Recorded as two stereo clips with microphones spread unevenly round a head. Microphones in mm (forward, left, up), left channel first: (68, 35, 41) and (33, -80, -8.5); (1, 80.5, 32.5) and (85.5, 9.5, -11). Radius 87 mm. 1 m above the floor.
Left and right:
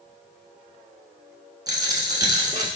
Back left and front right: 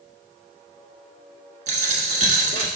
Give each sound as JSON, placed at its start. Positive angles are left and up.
{"t": 1.7, "sound": "a dropped coin", "azimuth_deg": -35, "distance_m": 1.2}